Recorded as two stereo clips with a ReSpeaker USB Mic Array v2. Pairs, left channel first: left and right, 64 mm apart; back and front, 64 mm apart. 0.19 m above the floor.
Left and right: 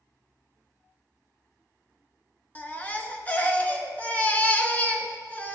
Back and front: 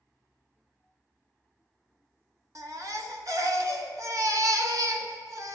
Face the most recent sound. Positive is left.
turn(degrees=25)